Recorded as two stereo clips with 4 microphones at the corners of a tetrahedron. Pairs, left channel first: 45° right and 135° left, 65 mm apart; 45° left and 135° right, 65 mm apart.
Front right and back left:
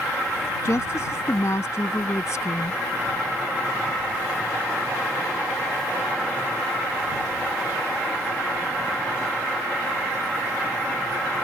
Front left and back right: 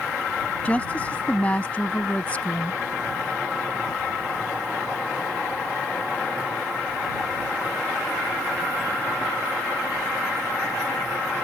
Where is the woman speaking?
20° right.